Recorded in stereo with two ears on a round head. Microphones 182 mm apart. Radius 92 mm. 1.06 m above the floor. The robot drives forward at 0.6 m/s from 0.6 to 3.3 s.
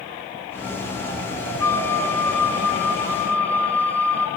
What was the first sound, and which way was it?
A flute, 15° left (ahead or behind).